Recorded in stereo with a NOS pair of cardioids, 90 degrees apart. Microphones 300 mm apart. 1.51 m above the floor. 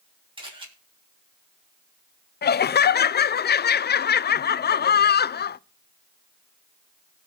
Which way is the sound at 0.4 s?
15° right.